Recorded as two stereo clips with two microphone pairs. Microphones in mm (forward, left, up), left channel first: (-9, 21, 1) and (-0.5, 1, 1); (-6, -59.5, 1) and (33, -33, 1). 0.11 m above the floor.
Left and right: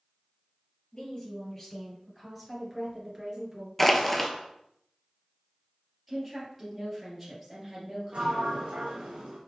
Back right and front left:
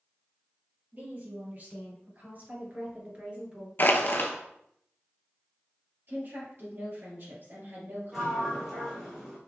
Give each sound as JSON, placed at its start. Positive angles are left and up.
{"t": 0.9, "sound": "a woman speaking", "azimuth_deg": 65, "distance_m": 2.5}
{"t": 3.8, "sound": "crushing", "azimuth_deg": -170, "distance_m": 0.8}
{"t": 6.1, "sound": "a woman speaking", "azimuth_deg": 20, "distance_m": 2.5}
{"t": 8.1, "sound": "a sliding door", "azimuth_deg": -45, "distance_m": 1.5}